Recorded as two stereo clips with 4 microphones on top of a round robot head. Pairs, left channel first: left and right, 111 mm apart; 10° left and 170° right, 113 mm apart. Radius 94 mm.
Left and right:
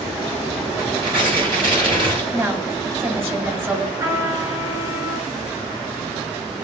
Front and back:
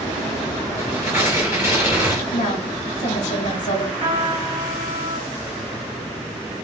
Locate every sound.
0.8 s tearing paper: 50° right, 3.5 m
2.3 s a woman speaking: 20° right, 1.9 m
4.0 s a trumpet: 30° right, 3 m